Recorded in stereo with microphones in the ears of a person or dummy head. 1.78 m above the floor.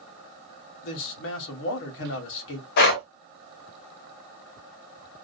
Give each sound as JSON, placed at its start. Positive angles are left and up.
{"t": 0.8, "sound": "a man speaking", "side_deg": 60, "distance_m": 1.1}
{"t": 2.8, "sound": "breathing", "side_deg": 55, "distance_m": 0.8}